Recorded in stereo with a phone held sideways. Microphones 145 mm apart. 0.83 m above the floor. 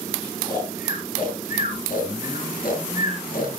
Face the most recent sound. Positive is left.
turn(degrees=75)  # may be behind; listen again after turning